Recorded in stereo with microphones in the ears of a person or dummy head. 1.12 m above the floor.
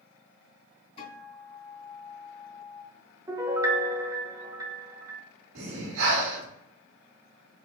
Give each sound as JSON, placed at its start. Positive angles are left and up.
{"t": 1.0, "sound": "a guitar", "side_deg": 40, "distance_m": 2.5}
{"t": 3.3, "sound": "a piano", "side_deg": -15, "distance_m": 0.7}
{"t": 5.5, "sound": "breathing", "side_deg": -75, "distance_m": 2.0}